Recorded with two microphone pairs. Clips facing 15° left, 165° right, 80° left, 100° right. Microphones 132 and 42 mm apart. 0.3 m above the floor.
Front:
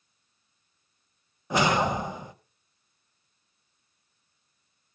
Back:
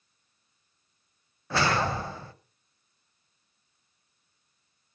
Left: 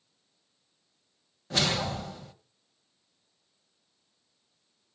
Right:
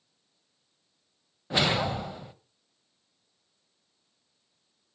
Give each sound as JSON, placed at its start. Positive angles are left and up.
{"t": 1.5, "sound": "a whoosh", "azimuth_deg": -45, "distance_m": 0.8}